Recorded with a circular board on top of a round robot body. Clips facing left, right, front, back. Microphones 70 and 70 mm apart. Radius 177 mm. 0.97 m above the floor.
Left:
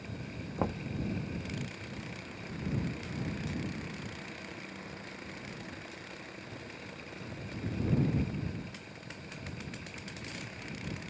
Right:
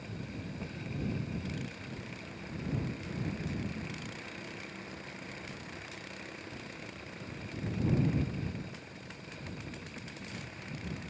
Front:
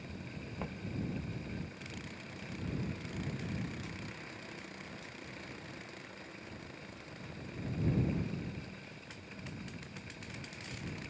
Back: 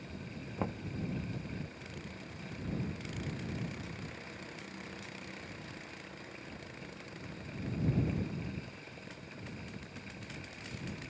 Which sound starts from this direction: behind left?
Knocking, at 0.6 s.